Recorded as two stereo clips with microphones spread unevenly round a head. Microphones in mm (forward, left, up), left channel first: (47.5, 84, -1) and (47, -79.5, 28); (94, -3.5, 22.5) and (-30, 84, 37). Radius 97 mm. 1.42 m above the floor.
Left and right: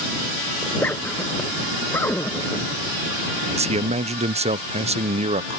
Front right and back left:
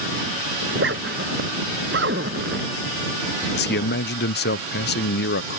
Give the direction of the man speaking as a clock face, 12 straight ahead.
1 o'clock.